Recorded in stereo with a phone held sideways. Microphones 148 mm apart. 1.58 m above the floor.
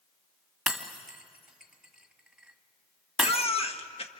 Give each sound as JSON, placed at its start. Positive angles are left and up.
{"t": 0.7, "sound": "breaking glass", "side_deg": 0, "distance_m": 1.6}
{"t": 3.2, "sound": "a baby crying", "side_deg": 40, "distance_m": 1.3}